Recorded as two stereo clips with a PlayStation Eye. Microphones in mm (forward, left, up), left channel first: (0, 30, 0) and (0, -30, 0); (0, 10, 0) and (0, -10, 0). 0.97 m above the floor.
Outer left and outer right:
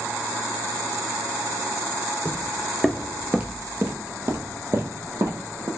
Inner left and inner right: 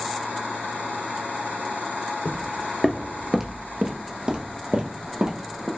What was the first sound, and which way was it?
Footsteps, 15° left (ahead or behind).